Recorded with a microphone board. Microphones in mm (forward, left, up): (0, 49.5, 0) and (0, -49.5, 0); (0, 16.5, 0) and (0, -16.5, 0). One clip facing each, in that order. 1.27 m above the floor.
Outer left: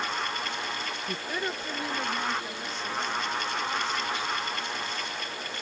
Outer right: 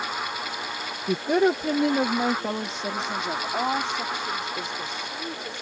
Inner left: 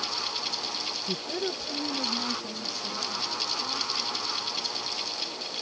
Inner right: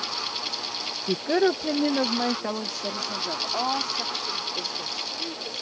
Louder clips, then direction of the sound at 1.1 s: Outer right 15 dB, inner right 12 dB; 50° right (ahead or behind).